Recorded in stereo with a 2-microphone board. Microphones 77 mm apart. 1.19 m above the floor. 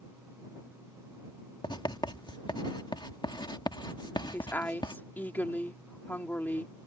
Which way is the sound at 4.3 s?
25° left (ahead or behind).